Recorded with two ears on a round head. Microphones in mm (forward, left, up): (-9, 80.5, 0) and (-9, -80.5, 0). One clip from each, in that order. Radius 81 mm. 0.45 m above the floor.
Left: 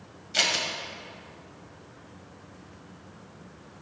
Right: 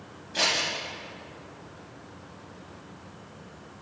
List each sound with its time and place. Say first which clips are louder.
0.3 s scissors: even; 55° left (ahead or behind), 1.7 m